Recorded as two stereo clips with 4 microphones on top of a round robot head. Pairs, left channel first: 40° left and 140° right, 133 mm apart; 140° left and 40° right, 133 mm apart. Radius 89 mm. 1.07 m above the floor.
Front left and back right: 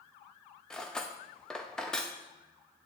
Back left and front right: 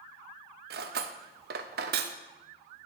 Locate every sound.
0.7 s cutlery clinking: 40° right, 0.6 m